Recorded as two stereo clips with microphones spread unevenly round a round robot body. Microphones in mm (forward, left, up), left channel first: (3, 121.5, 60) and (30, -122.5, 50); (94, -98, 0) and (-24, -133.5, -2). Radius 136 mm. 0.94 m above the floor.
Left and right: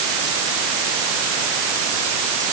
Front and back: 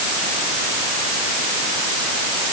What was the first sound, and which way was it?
Only background noise.